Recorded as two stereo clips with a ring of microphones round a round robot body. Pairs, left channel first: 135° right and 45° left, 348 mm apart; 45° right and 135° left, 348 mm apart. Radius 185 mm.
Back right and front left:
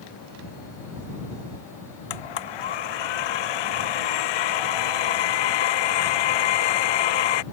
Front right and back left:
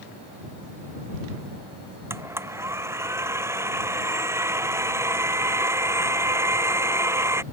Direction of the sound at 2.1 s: 140° right.